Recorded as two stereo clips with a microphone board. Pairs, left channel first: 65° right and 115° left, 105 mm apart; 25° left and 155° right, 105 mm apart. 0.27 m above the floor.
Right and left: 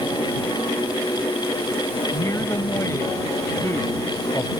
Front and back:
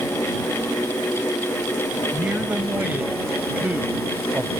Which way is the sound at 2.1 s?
95° right.